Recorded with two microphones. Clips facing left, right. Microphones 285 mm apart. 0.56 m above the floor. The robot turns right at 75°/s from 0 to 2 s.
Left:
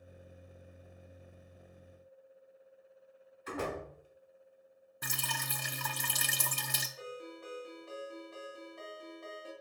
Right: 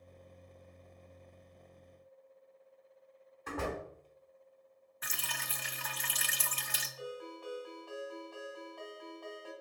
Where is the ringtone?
25° left (ahead or behind), 1.6 m.